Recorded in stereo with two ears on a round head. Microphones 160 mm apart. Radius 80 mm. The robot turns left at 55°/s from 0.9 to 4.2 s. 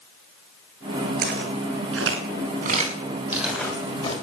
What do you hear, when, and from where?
1.2 s footsteps: 55° right (ahead or behind), 7.5 m; by 4.1 s 35° left (ahead or behind), 5 m